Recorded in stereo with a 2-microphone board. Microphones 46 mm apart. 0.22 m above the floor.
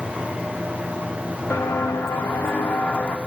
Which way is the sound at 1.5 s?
75° left (ahead or behind).